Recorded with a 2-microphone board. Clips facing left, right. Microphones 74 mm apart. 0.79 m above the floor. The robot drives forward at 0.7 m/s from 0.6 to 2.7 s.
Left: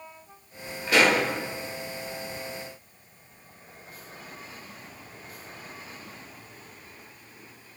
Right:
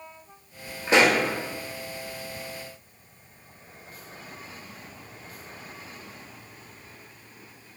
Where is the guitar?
No guitar in this recording.